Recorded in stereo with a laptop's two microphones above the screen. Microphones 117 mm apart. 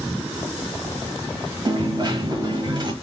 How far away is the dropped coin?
About 1.2 m.